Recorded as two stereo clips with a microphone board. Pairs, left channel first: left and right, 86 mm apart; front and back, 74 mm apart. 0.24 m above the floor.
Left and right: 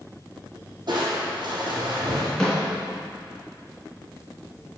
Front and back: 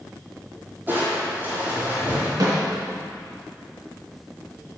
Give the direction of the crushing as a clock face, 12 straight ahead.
4 o'clock.